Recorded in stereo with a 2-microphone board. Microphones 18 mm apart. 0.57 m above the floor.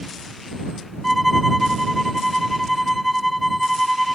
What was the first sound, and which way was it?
A violin, centre (ahead or behind).